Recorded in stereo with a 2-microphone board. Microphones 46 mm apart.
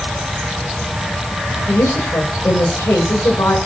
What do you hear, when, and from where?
1.7 s a woman speaking: 85° left, 8 m